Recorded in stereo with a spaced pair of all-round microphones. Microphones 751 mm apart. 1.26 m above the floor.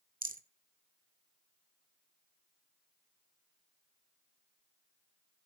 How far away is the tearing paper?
No tearing paper in this recording.